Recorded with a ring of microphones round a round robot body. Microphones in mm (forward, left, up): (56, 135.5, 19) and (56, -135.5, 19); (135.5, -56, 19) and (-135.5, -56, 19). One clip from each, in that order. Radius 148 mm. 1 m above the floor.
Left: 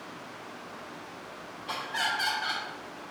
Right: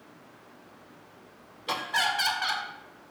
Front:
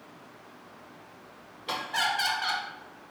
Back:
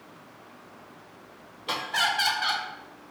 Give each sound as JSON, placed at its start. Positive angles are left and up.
{"t": 1.7, "sound": "laughter", "azimuth_deg": -90, "distance_m": 0.5}